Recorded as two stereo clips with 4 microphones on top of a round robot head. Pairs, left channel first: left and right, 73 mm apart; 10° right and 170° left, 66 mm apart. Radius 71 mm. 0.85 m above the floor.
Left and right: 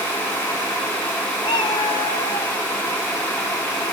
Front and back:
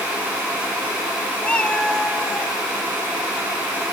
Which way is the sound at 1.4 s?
55° left.